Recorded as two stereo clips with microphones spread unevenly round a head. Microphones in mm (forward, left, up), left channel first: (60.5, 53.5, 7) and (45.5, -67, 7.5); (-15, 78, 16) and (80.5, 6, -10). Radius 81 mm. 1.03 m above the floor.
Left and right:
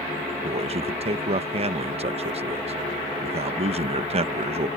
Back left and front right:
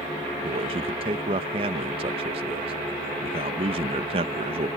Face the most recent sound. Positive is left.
turn(degrees=-70)